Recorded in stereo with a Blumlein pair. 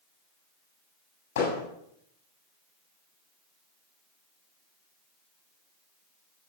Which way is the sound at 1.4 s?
55° left.